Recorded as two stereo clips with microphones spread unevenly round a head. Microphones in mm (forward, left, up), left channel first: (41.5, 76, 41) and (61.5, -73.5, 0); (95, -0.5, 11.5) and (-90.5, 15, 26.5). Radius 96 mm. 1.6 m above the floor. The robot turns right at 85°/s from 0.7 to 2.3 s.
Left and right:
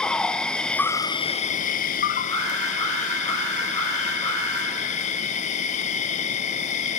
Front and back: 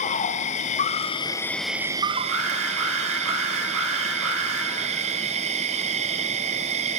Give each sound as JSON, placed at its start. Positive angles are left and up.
{"t": 0.0, "sound": "an insect", "azimuth_deg": 0, "distance_m": 0.7}
{"t": 2.3, "sound": "an alarm", "azimuth_deg": 165, "distance_m": 6.5}